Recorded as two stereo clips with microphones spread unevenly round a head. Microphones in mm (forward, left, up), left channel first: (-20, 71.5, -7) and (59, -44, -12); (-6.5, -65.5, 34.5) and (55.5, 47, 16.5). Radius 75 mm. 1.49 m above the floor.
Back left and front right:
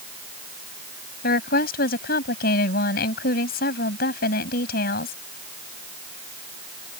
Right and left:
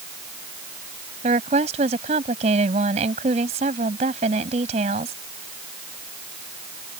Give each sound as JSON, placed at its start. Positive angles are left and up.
{"t": 1.2, "sound": "a woman speaking", "azimuth_deg": 110}